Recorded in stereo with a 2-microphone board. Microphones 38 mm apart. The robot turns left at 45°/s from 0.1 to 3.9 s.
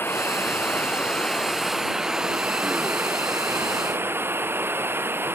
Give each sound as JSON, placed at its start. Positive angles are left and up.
{"t": 0.0, "sound": "running water", "azimuth_deg": 75}